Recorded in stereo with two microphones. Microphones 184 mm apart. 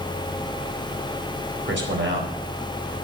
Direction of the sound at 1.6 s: 75° right (ahead or behind).